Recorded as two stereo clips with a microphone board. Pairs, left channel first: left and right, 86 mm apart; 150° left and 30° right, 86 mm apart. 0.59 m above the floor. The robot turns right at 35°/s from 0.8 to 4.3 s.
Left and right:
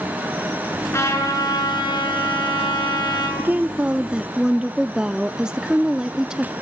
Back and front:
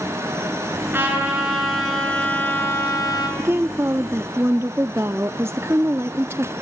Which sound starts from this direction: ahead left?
A trumpet, at 0.9 s.